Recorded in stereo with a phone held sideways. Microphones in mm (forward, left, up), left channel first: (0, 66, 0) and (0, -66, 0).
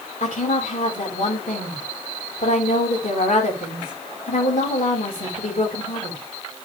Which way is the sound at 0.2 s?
75° left (ahead or behind).